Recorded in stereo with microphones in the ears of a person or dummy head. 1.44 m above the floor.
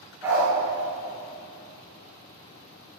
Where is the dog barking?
15° right (ahead or behind), 3.5 m.